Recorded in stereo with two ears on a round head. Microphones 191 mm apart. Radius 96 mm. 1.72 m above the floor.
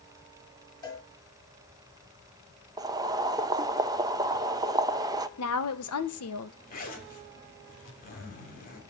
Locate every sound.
0.8 s a cowbell: 20° left (ahead or behind), 5.5 m
2.8 s boiling: 15° right (ahead or behind), 0.9 m
5.4 s a woman speaking: 80° left, 1.8 m
6.7 s a zipper: 40° left (ahead or behind), 3 m